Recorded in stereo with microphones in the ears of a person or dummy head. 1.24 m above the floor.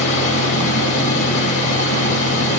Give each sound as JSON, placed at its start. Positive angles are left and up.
{"t": 0.0, "sound": "a fan", "side_deg": 65, "distance_m": 7.0}